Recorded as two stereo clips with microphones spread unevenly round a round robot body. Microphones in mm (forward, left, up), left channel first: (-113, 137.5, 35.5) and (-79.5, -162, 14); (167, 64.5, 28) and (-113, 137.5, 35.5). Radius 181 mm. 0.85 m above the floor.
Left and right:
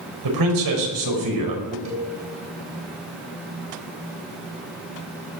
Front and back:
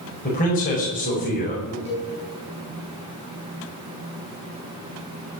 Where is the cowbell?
120° right, 6.5 m.